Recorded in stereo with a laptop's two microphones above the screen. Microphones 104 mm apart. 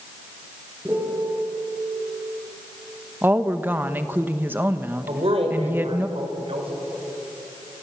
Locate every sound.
0.8 s a piano: 20° right (ahead or behind), 5.5 m
3.2 s a woman speaking: 20° right (ahead or behind), 1.0 m
5.1 s a woman speaking: 70° right (ahead or behind), 4.5 m